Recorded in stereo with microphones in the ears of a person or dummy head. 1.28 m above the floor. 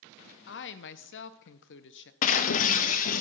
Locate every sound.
0.5 s a woman speaking: 55° left (ahead or behind), 0.8 m
2.2 s breaking glass: 45° left (ahead or behind), 0.7 m